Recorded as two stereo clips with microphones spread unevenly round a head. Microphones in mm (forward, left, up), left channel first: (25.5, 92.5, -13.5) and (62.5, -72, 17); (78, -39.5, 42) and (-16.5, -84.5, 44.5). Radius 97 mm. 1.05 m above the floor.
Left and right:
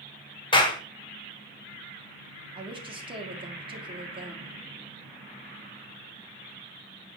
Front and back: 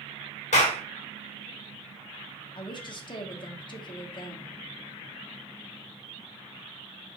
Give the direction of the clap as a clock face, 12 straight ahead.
11 o'clock.